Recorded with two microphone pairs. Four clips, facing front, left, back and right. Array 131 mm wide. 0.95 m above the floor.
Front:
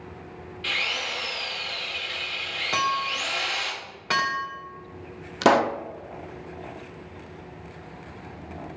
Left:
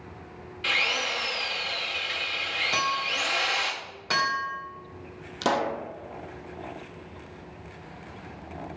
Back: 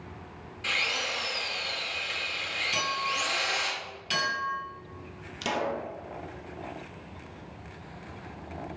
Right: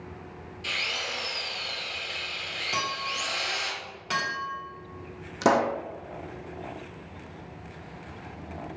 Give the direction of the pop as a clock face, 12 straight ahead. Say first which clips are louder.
Right 3 dB, front 11 dB; 1 o'clock.